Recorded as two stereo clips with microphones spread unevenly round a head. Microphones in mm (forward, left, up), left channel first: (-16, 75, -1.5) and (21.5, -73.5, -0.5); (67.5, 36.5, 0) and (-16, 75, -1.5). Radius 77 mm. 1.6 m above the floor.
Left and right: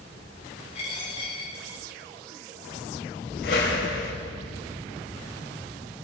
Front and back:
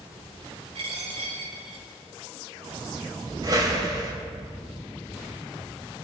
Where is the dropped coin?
155° left, 5.5 m.